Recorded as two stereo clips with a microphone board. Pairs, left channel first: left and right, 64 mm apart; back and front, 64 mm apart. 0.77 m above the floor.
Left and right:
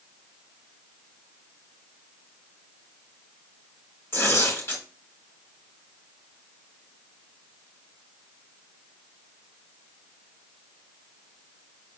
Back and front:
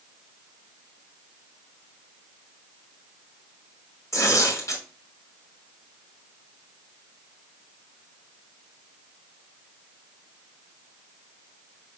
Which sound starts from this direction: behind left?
Tearing paper, at 4.1 s.